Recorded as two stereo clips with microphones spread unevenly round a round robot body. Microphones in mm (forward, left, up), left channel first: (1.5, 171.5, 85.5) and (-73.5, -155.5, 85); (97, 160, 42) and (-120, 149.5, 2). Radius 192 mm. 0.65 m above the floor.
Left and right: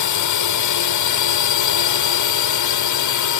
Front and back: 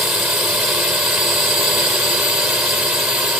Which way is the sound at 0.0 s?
100° left.